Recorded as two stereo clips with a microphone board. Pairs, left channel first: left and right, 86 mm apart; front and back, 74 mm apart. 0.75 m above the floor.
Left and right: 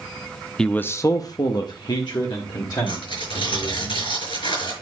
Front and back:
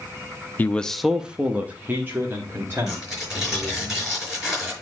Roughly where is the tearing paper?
Left.